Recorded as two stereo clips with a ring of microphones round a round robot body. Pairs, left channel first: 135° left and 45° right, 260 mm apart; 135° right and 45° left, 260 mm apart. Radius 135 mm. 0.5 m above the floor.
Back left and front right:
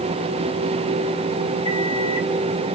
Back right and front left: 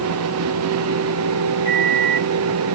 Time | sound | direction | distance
1.6 | a microwave | 175° left | 1.7 m